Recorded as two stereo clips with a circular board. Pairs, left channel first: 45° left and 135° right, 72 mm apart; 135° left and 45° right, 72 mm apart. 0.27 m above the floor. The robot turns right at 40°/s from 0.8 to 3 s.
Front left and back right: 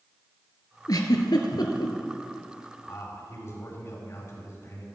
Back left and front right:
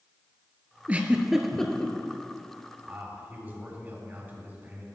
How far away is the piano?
No piano in this recording.